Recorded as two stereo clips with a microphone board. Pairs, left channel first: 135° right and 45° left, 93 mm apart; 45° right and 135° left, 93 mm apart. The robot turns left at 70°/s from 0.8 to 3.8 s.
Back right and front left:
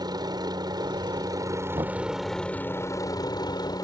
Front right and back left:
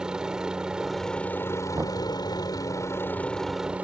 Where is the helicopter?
55° left; by 3.8 s 155° right.